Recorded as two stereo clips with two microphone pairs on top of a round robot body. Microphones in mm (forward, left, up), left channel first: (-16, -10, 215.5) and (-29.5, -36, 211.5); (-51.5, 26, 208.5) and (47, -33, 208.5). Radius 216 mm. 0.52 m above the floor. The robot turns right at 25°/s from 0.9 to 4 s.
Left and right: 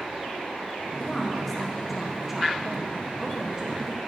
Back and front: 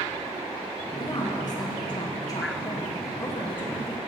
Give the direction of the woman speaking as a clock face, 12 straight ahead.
7 o'clock.